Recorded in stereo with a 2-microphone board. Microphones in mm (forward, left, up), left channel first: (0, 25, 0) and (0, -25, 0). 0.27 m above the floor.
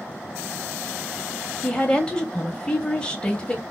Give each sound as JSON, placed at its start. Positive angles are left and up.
{"t": 1.6, "sound": "a woman speaking", "side_deg": 20, "distance_m": 1.0}